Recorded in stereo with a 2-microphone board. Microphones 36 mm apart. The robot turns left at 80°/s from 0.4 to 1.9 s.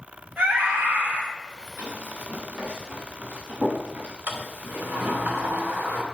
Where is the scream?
45° right, 2.5 m; by 1.2 s 110° right, 2.5 m.